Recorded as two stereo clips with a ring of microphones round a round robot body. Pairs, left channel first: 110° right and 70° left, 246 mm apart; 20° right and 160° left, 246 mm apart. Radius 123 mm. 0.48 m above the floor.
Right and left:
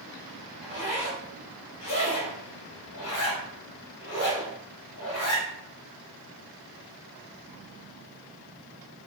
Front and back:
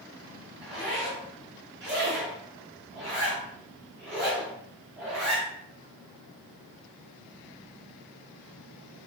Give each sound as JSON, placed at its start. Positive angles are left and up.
{"t": 0.6, "sound": "a zipper", "azimuth_deg": -115, "distance_m": 1.7}